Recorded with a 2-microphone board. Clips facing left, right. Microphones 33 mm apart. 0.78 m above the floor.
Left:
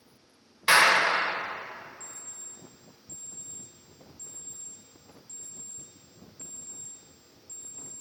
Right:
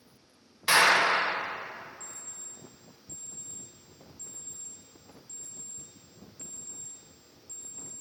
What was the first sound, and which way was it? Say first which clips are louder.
A clap: left 1 dB; 20° left (ahead or behind).